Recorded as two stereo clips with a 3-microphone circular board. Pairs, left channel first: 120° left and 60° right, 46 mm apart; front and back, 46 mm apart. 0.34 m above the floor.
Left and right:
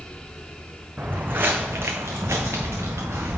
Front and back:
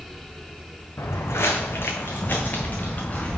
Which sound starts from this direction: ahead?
Footsteps, at 1.0 s.